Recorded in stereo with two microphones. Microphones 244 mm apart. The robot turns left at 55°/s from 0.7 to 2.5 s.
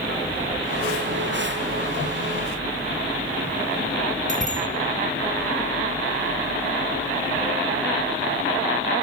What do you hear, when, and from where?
4.3 s a bicycle bell: 30° right (ahead or behind), 3.5 m